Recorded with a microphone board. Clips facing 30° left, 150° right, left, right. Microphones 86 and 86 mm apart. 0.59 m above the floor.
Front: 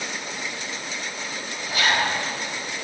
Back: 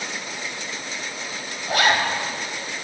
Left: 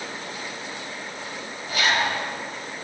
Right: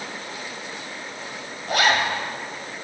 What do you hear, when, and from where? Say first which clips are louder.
1.7 s a zipper: back 3 dB, right 3 dB; 120° right, 1.6 m